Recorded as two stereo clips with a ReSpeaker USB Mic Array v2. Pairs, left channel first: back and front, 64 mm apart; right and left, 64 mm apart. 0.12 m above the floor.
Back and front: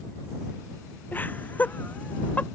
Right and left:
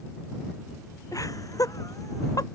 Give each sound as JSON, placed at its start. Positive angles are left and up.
{"t": 1.1, "sound": "laughter", "azimuth_deg": -120}